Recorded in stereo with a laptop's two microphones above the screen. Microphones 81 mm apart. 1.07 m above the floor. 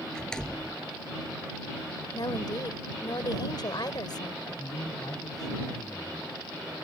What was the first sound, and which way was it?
A door slam, 10° left (ahead or behind).